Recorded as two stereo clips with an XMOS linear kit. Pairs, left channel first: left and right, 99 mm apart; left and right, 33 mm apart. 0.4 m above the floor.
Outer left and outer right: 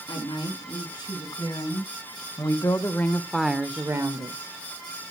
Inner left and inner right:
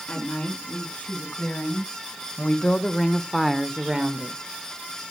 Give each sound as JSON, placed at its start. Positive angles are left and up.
{"t": 0.1, "sound": "a woman speaking", "side_deg": 50, "distance_m": 5.0}